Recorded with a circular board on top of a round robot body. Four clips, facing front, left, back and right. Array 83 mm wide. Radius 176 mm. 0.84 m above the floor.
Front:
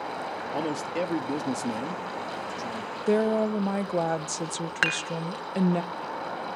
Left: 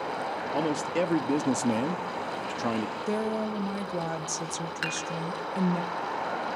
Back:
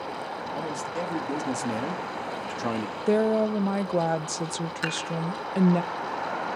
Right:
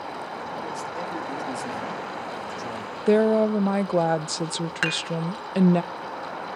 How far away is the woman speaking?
About 0.8 m.